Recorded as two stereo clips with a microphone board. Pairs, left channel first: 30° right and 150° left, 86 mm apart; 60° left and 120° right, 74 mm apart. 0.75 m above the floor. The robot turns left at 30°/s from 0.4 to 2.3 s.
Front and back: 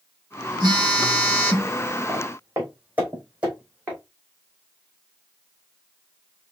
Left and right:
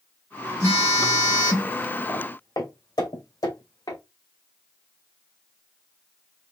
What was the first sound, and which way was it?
A phone buzzing, 120° left.